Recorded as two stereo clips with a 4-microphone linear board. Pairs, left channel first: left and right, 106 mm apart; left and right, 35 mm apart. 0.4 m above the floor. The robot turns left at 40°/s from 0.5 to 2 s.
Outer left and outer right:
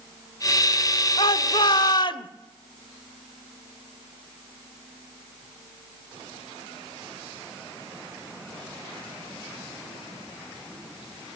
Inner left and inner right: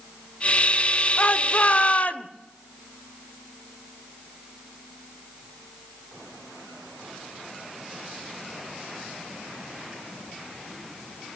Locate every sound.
1.2 s a shout: 105° left, 1.3 m; by 2.3 s 70° left, 1.3 m